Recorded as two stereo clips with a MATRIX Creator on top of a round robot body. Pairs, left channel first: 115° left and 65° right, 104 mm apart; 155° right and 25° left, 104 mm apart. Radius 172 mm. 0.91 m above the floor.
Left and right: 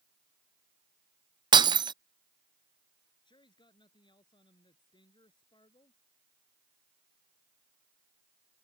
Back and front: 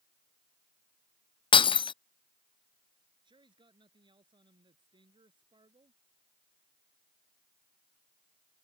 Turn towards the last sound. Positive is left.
turn(degrees=70)